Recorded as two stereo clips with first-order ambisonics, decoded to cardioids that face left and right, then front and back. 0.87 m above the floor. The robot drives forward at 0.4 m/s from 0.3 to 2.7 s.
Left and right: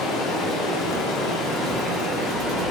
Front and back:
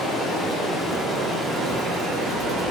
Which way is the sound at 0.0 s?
55° left.